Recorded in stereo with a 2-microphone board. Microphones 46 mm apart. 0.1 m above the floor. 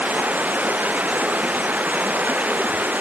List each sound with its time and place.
0.0 s running water: 35° right (ahead or behind)